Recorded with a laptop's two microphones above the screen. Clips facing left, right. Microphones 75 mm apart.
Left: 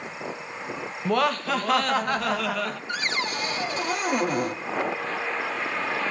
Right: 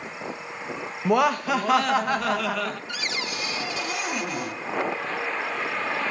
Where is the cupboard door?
40° left (ahead or behind), 1.1 m.